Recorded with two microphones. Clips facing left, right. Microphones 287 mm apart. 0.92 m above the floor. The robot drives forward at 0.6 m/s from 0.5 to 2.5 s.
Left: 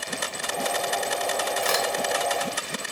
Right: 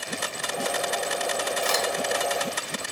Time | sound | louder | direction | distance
1.6 | a crack | left 1 dB | 65° left (ahead or behind) | 2 m